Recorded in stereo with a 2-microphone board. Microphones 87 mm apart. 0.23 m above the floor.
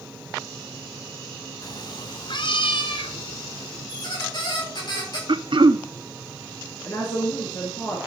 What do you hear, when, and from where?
1.6 s a cat meowing: 45° left (ahead or behind), 0.6 m; by 3.9 s 75° left (ahead or behind), 2 m
3.9 s a squeak: 55° left (ahead or behind), 8 m
5.3 s throat clearing: 65° right (ahead or behind), 0.6 m
6.8 s a woman speaking: 40° left (ahead or behind), 3.5 m